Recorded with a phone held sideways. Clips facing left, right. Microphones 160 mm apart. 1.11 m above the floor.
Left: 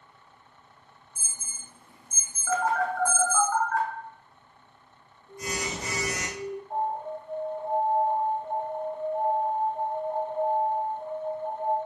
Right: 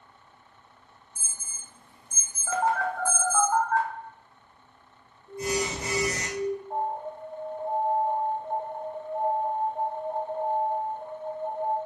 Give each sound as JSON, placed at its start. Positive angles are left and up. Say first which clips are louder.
{"t": 1.1, "sound": "an alarm", "louder": "left 1 dB", "side_deg": 60, "distance_m": 1.2}
{"t": 2.5, "sound": "a phone buzzing", "louder": "even", "side_deg": -25, "distance_m": 0.9}
{"t": 5.3, "sound": "an alarm", "louder": "right 5 dB", "side_deg": -65, "distance_m": 0.7}
{"t": 6.7, "sound": "an alarm", "louder": "left 1 dB", "side_deg": 60, "distance_m": 1.9}